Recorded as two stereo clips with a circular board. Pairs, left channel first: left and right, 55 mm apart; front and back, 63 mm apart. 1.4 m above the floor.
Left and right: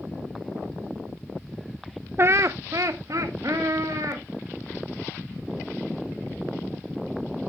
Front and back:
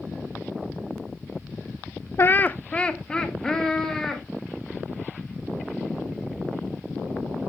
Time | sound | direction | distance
2.2 | laughter | 45° right | 0.6 m